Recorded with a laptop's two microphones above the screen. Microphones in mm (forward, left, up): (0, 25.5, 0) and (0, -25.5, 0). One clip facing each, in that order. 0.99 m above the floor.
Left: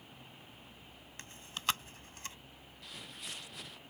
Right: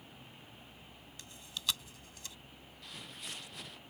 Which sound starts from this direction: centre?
Footsteps, at 2.8 s.